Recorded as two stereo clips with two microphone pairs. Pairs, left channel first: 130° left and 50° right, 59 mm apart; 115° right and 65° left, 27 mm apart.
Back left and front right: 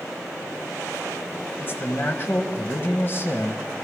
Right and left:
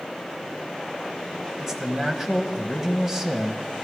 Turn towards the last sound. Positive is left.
turn(degrees=125)